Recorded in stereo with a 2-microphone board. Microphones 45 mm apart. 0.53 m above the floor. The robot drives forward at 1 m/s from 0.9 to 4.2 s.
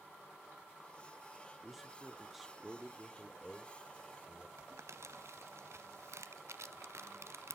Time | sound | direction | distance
1.6 | a man speaking | 5° right (ahead or behind) | 1.0 m
4.6 | crumpling | 75° right (ahead or behind) | 1.0 m